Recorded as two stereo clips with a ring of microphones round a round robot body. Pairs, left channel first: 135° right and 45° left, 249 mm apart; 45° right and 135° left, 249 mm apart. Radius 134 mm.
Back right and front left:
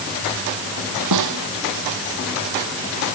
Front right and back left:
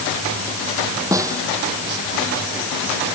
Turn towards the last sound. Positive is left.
turn(degrees=55)